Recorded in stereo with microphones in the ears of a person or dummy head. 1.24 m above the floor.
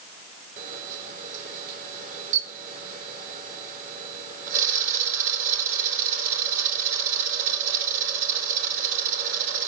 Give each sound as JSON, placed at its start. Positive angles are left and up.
{"t": 0.6, "sound": "a camera shutter", "side_deg": -45, "distance_m": 3.0}